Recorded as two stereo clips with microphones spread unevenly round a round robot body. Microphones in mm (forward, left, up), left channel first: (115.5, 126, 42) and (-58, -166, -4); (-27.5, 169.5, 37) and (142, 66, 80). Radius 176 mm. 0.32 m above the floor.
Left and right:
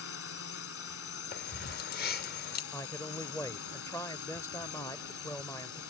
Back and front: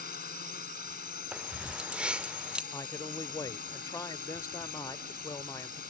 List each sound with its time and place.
0.0 s a drone: 115° left
1.3 s keys jangling: 80° left
2.7 s a man speaking: 150° left